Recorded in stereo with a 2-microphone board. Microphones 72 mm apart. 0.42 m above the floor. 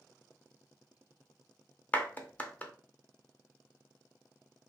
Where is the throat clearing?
No throat clearing in this recording.